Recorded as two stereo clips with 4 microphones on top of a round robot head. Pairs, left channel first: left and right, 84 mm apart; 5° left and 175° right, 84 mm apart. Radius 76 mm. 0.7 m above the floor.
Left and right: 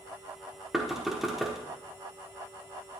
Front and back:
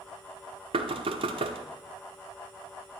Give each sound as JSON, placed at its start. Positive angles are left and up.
{"t": 0.7, "sound": "knocking", "azimuth_deg": -175, "distance_m": 1.0}